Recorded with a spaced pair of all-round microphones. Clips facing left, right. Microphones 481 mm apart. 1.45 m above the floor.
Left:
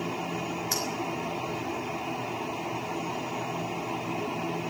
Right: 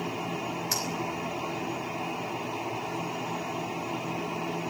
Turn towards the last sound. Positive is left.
turn(degrees=-50)  # may be behind; listen again after turning